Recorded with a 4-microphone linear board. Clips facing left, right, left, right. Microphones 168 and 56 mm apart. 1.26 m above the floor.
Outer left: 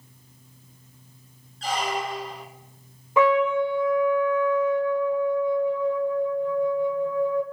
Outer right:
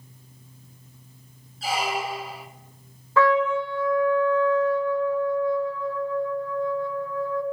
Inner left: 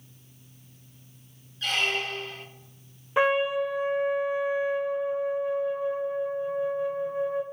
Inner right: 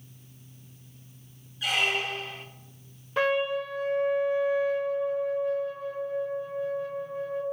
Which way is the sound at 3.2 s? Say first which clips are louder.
Outer left 1 dB, inner left 3 dB; 20° left (ahead or behind).